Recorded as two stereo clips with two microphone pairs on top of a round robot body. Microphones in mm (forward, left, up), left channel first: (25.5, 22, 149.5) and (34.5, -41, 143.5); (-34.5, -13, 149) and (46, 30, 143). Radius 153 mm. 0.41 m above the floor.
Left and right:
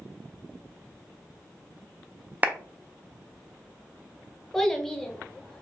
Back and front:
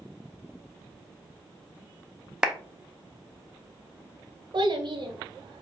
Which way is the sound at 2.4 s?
45° right.